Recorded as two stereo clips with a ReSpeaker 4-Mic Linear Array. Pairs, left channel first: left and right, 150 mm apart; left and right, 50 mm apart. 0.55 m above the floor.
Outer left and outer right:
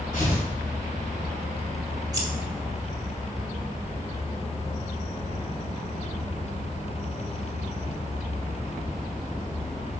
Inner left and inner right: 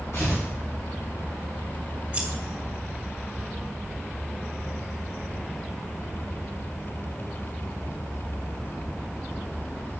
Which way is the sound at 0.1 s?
65° left (ahead or behind).